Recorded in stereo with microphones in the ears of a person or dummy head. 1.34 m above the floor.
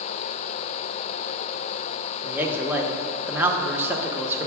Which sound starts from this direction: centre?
A man speaking, at 2.2 s.